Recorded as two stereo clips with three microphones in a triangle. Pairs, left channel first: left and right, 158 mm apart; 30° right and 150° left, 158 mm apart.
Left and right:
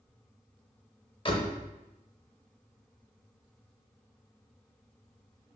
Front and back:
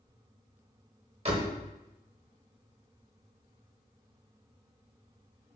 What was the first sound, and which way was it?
A door slam, 130° left.